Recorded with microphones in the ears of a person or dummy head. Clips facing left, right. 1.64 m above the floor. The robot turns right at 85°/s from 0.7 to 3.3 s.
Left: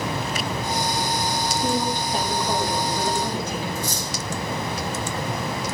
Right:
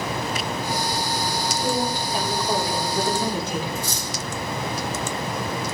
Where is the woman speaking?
100° left, 4 m; by 3.6 s 115° right, 4 m.